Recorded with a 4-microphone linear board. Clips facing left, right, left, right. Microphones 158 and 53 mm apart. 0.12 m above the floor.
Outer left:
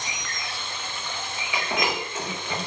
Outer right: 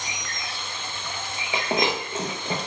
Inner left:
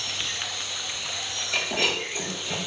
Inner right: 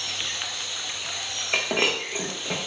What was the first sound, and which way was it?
Breaking glass, 35° right (ahead or behind).